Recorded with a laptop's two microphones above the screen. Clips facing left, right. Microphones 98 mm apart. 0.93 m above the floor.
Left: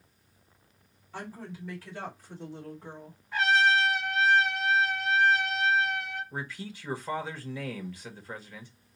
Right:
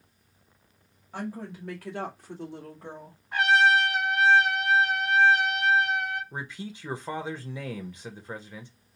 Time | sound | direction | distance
1.1 | a woman speaking | 55° right (ahead or behind) | 2.0 m
3.3 | a trumpet | 65° right (ahead or behind) | 3 m
6.3 | a man speaking | 20° right (ahead or behind) | 0.9 m